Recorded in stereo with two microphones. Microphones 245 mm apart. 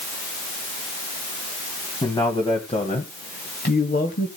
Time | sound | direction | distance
2.0 | a man speaking | 20° left (ahead or behind) | 2 m